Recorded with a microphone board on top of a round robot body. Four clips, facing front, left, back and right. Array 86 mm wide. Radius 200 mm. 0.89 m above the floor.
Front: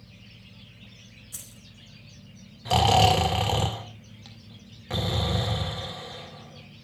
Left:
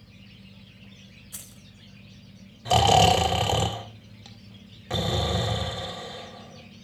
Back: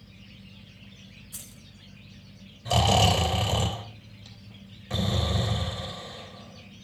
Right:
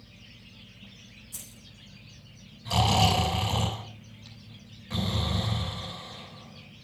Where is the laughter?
I don't hear laughter.